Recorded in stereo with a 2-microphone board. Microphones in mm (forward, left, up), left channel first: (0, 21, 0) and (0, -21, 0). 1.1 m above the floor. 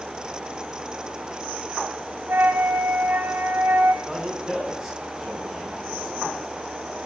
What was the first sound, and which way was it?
A flute, 55° right (ahead or behind).